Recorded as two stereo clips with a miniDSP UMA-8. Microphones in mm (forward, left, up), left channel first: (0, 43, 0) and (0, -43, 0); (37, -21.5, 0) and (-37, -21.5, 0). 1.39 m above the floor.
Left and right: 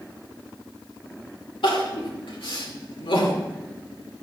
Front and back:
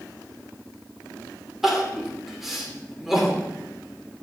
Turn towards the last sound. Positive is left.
turn(degrees=95)